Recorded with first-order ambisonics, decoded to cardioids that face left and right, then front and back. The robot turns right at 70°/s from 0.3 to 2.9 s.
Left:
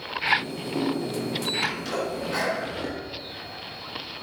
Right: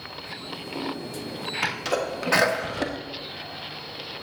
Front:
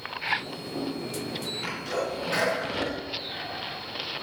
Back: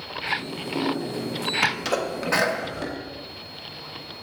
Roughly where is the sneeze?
Behind.